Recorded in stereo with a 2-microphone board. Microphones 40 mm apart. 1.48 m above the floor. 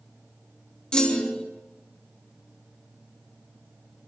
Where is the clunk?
20° left (ahead or behind), 3 m.